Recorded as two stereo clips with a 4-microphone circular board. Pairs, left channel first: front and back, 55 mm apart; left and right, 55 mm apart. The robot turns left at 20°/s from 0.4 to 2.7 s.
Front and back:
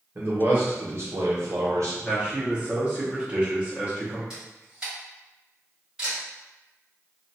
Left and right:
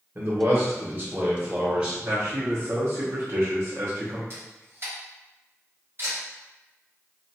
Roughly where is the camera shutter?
Right.